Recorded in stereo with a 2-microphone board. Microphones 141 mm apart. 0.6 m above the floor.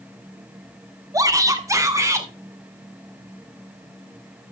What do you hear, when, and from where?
1.1 s a shout: 25° right (ahead or behind), 1.2 m; by 2.3 s 20° right (ahead or behind), 1.9 m